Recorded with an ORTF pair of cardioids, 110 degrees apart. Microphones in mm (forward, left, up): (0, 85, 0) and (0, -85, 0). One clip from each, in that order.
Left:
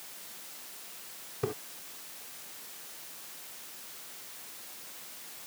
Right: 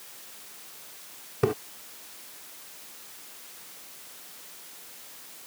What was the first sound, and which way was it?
A splash, 50° right.